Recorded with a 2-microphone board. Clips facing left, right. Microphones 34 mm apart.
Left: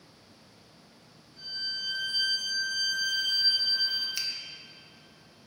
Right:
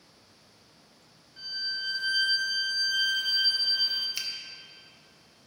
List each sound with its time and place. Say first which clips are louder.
1.4 s a violin: right 2 dB; 60° right (ahead or behind), 2.5 m
4.2 s a finger snap: left 1 dB; 5° right (ahead or behind), 1.0 m